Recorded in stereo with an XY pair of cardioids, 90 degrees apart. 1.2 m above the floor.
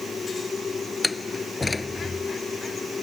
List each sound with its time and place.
0.0 s a machine running: 40° left
1.0 s a door slam: 25° left